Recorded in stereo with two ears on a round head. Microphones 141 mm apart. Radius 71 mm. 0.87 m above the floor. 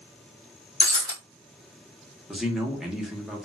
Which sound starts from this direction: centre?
A man speaking, at 2.3 s.